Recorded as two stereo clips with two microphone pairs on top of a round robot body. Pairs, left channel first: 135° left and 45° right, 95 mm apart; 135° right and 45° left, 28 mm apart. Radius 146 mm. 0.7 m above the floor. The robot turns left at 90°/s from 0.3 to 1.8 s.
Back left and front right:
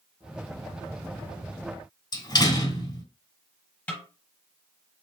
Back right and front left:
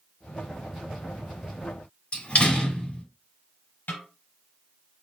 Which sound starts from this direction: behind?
A door slam, at 2.1 s.